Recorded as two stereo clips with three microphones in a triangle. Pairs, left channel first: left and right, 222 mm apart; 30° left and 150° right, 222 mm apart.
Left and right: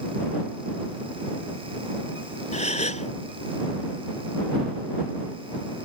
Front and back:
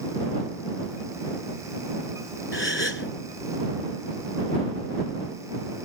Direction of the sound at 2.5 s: 35° left.